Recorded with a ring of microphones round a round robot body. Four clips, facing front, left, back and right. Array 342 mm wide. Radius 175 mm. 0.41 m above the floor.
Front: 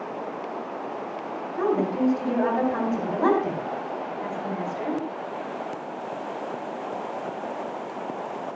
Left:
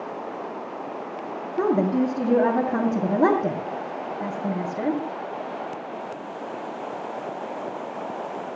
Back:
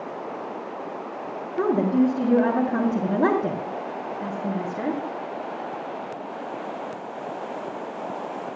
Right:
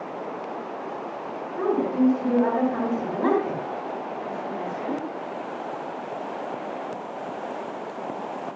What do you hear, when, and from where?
1.6 s a woman speaking: 125° left, 3 m